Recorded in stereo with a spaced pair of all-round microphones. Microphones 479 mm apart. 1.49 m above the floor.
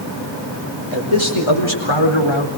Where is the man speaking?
85° left, 5.5 m; by 2.5 s 75° left (ahead or behind), 4 m.